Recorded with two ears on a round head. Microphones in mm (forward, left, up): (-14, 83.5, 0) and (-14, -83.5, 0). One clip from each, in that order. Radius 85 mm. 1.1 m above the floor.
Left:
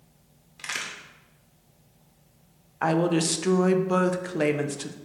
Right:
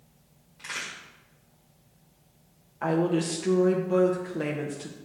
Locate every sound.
0.6 s a crack: 75° left (ahead or behind), 1.6 m
2.8 s a woman speaking: 35° left (ahead or behind), 0.5 m